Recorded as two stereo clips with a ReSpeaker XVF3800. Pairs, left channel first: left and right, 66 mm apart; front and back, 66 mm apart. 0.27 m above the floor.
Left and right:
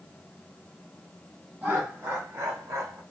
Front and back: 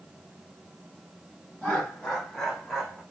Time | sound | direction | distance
1.6 | laughter | 55° right | 1.3 m